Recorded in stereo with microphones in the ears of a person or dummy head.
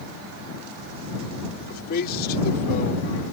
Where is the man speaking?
60° left (ahead or behind); by 3.1 s 50° left (ahead or behind).